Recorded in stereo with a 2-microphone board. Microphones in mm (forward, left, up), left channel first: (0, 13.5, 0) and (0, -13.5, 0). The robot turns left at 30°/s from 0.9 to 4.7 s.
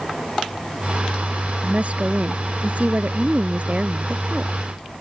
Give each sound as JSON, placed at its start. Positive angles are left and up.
{"t": 1.6, "sound": "a woman speaking", "azimuth_deg": -55}